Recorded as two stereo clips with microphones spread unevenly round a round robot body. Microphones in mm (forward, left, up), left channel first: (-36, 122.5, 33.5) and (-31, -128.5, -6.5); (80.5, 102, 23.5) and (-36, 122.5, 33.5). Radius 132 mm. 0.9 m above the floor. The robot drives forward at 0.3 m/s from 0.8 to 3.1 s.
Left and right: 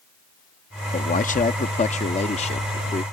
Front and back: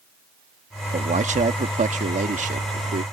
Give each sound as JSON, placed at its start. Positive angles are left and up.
{"t": 0.9, "sound": "a man speaking", "azimuth_deg": 150}